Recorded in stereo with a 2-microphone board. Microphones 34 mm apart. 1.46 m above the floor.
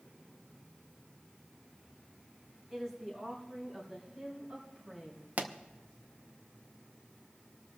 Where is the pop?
55° right (ahead or behind), 0.9 m.